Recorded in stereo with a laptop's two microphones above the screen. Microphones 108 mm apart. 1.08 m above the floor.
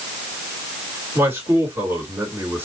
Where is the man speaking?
20° right (ahead or behind), 3 m.